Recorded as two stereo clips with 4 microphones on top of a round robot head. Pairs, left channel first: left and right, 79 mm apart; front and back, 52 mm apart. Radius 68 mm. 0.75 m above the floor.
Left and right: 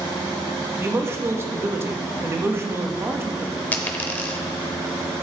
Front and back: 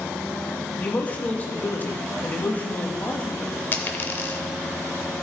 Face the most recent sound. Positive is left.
turn(degrees=30)